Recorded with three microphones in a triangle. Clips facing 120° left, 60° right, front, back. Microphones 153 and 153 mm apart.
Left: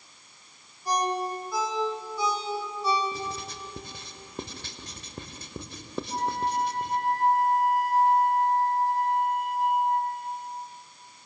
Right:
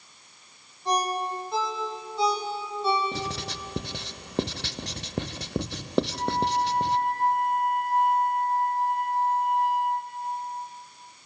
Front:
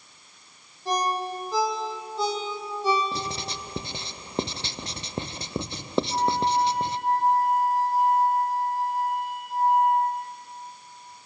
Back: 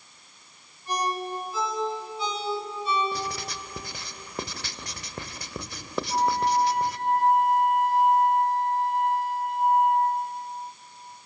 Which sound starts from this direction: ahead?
A ringtone, at 0.8 s.